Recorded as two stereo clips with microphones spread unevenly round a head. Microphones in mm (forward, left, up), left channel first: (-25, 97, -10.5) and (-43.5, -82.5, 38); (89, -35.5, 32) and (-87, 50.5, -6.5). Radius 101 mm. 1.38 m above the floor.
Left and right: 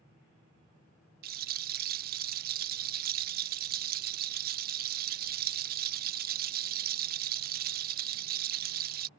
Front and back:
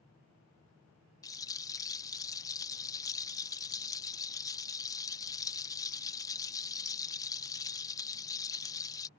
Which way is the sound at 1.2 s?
90° right.